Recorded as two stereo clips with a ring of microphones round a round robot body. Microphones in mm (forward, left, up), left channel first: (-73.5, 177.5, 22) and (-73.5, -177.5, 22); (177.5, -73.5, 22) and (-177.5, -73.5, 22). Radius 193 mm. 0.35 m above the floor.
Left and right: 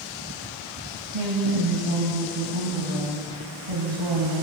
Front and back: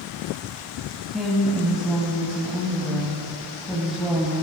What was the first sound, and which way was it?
A woman speaking, 90° right.